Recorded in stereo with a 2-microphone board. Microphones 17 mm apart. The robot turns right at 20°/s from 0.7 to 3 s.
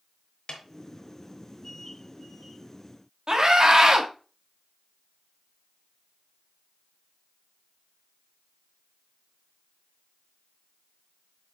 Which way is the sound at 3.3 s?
45° right (ahead or behind).